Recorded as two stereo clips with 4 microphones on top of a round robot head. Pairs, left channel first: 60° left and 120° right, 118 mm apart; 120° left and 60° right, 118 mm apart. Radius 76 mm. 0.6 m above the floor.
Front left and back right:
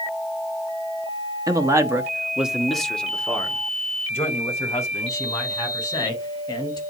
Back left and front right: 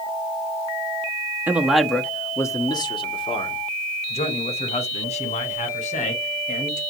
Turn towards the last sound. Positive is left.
turn(degrees=120)